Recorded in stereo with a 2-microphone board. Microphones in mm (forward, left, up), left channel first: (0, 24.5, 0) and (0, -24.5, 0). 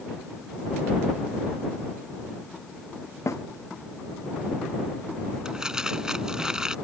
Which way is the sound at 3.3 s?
80° left.